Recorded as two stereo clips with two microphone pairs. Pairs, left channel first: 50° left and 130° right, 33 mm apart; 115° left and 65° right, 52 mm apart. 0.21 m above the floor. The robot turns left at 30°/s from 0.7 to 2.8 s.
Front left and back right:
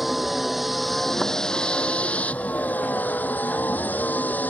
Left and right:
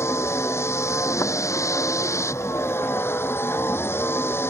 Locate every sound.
0.0 s a vehicle: 145° left; by 4.5 s 80° left